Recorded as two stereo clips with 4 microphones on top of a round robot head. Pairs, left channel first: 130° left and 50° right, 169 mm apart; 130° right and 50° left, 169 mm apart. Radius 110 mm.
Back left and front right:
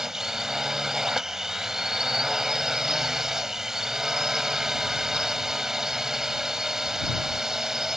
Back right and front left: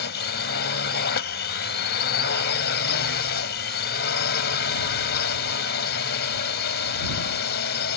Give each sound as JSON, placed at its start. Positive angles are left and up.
{"t": 0.0, "sound": "a drone", "azimuth_deg": -135}